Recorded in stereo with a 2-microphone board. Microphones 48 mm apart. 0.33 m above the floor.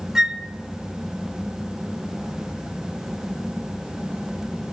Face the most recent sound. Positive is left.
turn(degrees=-10)  # may be behind; listen again after turning